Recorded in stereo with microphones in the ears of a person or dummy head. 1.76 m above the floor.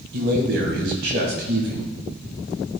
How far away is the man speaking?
About 1.7 m.